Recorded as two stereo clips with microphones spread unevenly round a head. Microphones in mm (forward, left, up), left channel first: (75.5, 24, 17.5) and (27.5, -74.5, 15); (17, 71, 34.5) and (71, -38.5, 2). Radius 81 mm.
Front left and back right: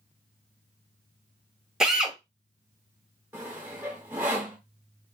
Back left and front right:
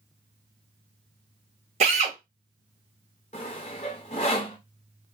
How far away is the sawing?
About 0.7 m.